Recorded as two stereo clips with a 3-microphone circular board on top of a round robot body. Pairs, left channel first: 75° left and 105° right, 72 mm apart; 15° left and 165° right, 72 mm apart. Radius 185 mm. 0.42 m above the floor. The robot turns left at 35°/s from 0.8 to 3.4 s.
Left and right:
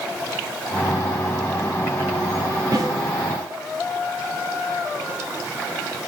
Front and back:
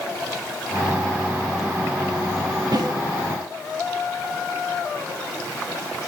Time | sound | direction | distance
2.7 | a snare drum | 140° right | 0.6 m